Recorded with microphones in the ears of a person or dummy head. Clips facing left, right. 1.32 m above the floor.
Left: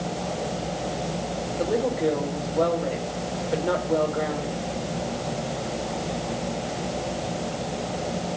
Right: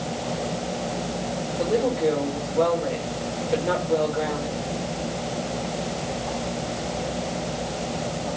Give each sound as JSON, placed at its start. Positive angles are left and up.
{"t": 1.6, "sound": "a woman speaking", "side_deg": 5, "distance_m": 5.0}